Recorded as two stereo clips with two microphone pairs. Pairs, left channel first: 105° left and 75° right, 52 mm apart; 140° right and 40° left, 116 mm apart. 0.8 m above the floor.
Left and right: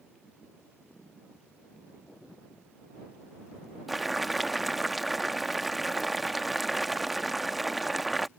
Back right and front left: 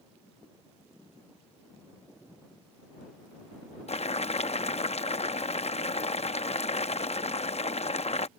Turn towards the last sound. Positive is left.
turn(degrees=-170)